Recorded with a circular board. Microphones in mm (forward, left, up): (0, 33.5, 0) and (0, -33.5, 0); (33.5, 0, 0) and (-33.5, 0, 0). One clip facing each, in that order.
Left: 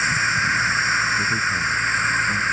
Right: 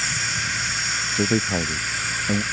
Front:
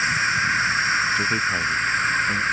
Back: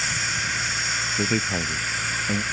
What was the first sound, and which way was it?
An insect, 50° left.